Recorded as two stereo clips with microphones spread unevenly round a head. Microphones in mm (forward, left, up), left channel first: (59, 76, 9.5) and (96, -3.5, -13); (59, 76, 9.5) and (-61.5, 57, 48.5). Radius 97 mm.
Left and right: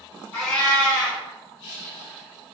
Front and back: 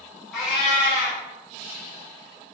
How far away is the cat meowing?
About 1.3 m.